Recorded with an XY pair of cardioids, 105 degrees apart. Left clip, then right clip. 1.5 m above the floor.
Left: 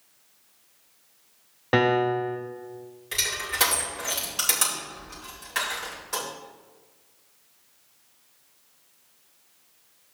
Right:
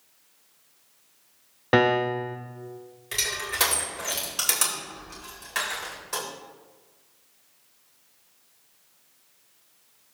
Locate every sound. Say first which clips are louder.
1.7 s a piano: right 1 dB; 20° right, 0.8 m
3.1 s crushing: left 1 dB; 15° right, 4 m